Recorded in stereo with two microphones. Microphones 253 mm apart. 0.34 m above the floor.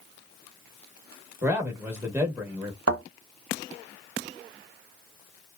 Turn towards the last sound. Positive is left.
turn(degrees=-65)  # may be behind; listen again after turning